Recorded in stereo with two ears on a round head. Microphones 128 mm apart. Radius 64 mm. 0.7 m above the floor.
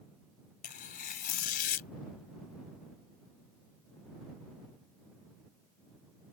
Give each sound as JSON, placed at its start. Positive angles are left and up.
{"t": 0.6, "sound": "tearing paper", "side_deg": 65}